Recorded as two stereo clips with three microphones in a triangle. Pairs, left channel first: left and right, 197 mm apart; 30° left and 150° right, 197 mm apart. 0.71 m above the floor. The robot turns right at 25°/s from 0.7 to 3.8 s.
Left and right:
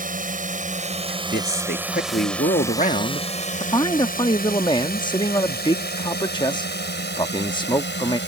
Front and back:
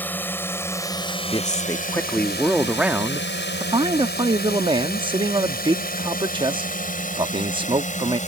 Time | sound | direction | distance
0.0 | a drone | 50° right | ?
1.1 | a man speaking | 85° left | ?